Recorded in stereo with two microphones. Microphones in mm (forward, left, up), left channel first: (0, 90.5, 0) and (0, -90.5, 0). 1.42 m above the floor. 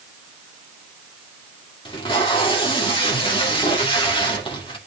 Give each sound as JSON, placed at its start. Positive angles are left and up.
{"t": 1.9, "sound": "tape being pulled", "side_deg": 30, "distance_m": 2.5}